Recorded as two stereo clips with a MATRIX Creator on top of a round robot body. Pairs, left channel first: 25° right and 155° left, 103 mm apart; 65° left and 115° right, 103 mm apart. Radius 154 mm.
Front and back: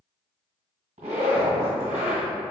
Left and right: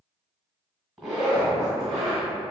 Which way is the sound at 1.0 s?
165° left.